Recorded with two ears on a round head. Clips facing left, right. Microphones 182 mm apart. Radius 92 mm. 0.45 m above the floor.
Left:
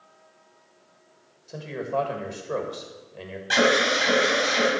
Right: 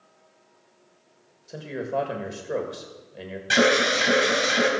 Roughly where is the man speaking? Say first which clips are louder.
Even; centre.